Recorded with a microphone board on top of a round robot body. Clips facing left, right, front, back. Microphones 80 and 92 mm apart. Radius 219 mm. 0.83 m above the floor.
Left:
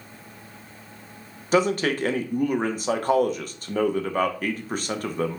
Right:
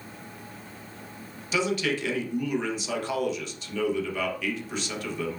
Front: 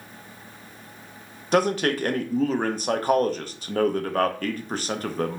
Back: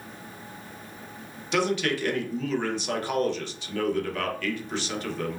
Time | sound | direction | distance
1.5 | a man speaking | 45° left | 0.6 m